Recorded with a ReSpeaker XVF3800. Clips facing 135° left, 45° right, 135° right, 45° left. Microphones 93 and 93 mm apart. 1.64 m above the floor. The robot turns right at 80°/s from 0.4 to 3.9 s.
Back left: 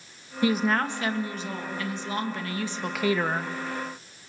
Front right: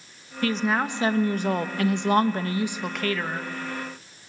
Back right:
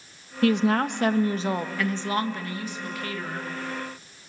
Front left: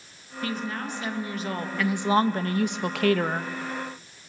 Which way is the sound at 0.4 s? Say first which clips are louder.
Even, back right 10 dB; 155° right.